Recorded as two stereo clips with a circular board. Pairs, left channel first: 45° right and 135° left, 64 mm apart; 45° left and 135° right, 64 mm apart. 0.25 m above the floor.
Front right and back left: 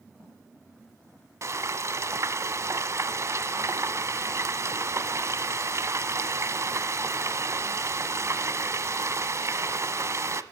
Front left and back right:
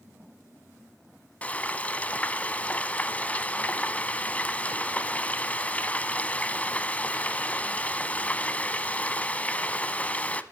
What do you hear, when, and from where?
1.4 s frying: 110° left, 1.1 m